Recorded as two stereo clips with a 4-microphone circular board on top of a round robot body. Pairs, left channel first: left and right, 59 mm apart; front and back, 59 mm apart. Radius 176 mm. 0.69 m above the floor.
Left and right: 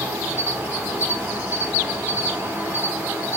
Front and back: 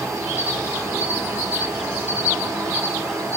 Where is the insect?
150° right, 3 m.